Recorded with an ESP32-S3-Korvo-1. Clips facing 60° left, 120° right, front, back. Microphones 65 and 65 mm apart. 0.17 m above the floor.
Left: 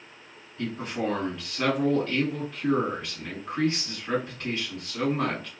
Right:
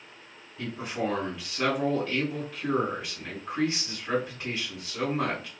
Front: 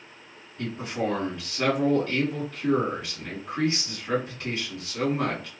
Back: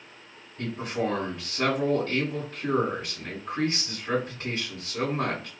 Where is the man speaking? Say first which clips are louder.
Left 1 dB, even; 175° left, 1.5 m.